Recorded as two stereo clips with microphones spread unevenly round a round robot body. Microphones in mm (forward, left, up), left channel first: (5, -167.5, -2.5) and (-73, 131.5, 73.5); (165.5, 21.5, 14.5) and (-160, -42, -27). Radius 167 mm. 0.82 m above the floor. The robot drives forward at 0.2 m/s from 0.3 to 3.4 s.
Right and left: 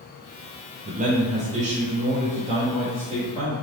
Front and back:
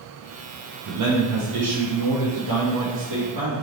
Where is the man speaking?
Straight behind, 0.6 m.